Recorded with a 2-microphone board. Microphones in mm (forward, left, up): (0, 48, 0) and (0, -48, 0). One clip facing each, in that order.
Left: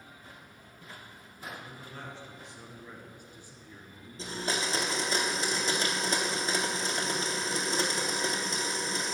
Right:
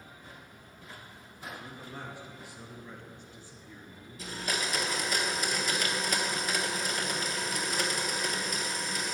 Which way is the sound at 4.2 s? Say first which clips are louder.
Left 2 dB; 30° left (ahead or behind).